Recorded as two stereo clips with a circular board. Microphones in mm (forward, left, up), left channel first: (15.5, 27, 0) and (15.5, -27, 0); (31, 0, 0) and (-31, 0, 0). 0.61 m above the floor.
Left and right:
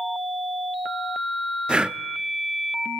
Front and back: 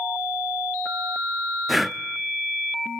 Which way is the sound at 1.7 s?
95° right.